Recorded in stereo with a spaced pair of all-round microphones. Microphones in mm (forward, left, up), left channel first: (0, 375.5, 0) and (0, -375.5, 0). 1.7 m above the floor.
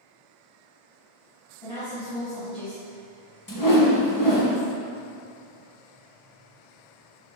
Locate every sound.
1.6 s a woman speaking: 30° left (ahead or behind), 1.2 m
3.5 s a whoosh: 30° left (ahead or behind), 0.6 m